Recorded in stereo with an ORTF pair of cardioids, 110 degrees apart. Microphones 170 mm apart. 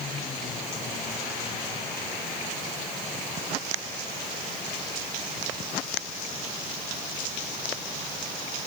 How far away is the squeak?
I don't hear a squeak.